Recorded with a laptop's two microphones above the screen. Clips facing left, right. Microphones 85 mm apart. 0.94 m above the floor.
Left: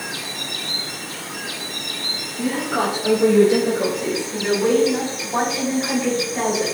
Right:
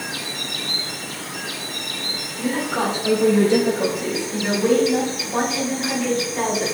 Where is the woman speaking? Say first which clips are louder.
Left 1 dB; 10° left (ahead or behind), 1.9 m.